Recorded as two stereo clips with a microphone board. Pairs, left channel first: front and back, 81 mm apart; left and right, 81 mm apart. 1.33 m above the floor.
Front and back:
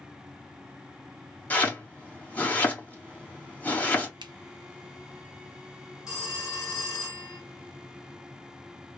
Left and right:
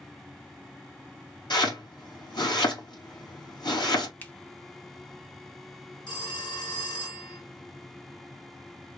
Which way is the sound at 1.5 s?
70° left.